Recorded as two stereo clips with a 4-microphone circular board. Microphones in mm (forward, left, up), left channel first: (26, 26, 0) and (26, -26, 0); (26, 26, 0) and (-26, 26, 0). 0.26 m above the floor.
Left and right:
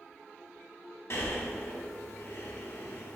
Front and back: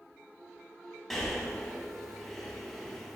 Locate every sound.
1.1 s breathing: 85° left, 0.8 m